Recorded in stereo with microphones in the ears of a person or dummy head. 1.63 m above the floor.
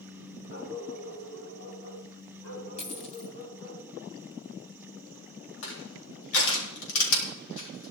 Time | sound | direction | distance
0.5 | a dog barking | 75° left (ahead or behind) | 4.5 m
2.8 | a dropped coin | 35° left (ahead or behind) | 2 m
5.6 | crushing | 80° left | 3.5 m